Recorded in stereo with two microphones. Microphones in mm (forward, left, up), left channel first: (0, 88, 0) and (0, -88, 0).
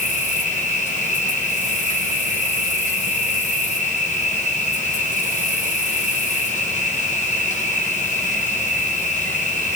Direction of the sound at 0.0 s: 45° left (ahead or behind).